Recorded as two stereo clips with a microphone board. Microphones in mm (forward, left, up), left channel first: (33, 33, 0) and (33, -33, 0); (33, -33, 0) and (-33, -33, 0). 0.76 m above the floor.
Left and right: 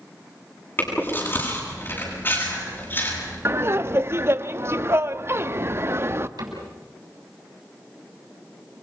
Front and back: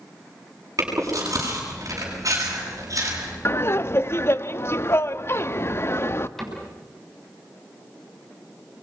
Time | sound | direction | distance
0.8 | chewing | 145° left | 8.5 m
3.5 | laughter | 45° right | 0.9 m
6.4 | a cupboard door | 85° right | 6.5 m